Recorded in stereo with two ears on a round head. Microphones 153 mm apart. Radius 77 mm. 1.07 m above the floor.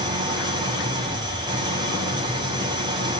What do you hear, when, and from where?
0.0 s an engine running: 25° right (ahead or behind), 6.5 m